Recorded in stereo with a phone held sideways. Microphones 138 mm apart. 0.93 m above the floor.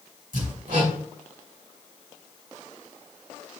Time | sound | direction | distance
0.3 | hammering | 70° right (ahead or behind) | 3 m